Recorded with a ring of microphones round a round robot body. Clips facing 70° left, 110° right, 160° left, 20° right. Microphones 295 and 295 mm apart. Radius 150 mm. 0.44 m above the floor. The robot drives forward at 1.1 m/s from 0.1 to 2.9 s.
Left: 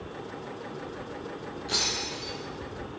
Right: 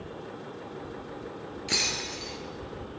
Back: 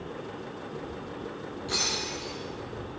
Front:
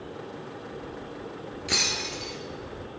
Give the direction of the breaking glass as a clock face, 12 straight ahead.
2 o'clock.